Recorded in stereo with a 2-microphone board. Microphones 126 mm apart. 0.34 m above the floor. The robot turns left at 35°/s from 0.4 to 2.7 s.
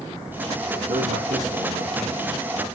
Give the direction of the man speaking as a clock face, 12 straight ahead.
2 o'clock.